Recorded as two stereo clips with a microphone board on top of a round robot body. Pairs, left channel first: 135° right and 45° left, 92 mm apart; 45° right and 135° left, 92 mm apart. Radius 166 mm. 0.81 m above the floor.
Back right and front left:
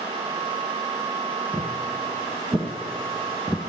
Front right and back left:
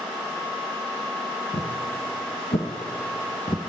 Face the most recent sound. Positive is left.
turn(degrees=-20)